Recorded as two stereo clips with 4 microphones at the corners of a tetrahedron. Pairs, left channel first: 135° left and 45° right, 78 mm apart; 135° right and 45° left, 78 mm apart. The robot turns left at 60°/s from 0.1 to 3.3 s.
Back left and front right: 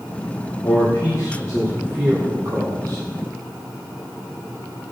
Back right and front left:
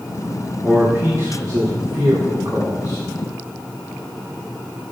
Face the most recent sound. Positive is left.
turn(degrees=-50)